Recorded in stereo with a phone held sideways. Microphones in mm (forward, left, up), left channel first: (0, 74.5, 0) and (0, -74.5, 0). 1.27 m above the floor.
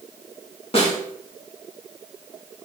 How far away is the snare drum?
About 1.2 m.